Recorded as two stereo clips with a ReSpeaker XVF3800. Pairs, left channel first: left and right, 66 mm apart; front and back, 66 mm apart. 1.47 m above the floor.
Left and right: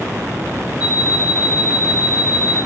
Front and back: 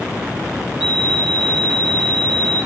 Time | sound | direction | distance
0.8 | an alarm clock | 95° left | 5.5 m